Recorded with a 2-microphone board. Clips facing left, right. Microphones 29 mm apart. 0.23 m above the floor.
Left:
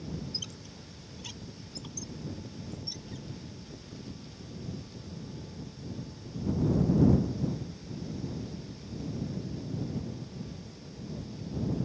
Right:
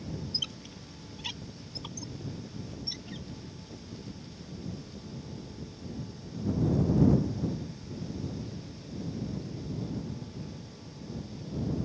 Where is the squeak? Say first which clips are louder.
Right 5 dB; 30° right (ahead or behind).